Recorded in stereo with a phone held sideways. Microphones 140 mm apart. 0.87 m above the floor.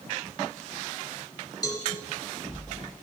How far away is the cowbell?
About 1.0 m.